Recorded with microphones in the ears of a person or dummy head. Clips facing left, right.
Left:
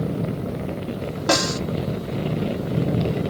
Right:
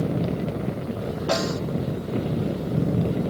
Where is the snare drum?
65° left (ahead or behind), 1.1 m.